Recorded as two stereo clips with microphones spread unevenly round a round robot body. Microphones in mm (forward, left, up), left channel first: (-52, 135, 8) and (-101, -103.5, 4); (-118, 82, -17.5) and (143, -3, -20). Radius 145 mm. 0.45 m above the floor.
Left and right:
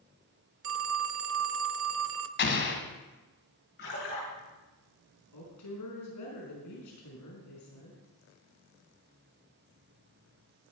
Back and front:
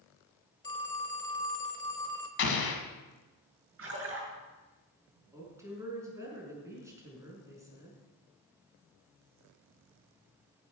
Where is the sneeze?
I don't hear a sneeze.